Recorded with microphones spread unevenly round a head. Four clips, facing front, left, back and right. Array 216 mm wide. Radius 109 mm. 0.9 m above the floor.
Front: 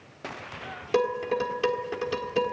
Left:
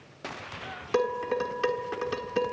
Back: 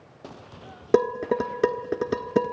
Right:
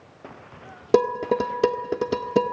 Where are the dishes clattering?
130° right, 1.3 m.